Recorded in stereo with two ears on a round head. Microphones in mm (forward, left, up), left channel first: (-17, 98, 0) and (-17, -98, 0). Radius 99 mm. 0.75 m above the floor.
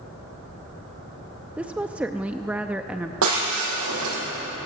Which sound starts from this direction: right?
Breaking glass, at 3.2 s.